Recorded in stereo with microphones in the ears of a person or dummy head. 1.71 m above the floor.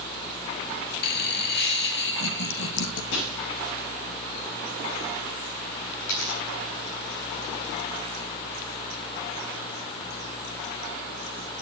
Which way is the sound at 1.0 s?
55° left (ahead or behind).